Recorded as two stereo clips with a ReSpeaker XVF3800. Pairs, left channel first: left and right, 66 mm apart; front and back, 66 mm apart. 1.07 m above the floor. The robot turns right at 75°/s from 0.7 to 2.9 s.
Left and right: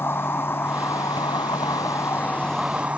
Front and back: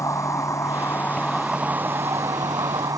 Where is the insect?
35° left; by 3.0 s 160° right.